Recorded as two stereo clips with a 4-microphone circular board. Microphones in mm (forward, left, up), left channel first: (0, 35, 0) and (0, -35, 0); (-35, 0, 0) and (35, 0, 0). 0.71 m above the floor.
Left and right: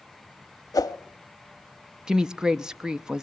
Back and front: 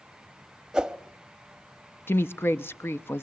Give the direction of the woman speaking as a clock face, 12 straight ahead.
5 o'clock.